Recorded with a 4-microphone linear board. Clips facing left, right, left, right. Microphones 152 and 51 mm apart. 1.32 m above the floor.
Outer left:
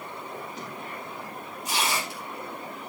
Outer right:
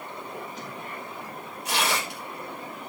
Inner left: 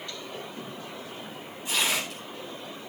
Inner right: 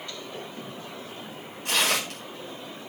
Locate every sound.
1.6 s tearing paper: 65° right (ahead or behind), 6 m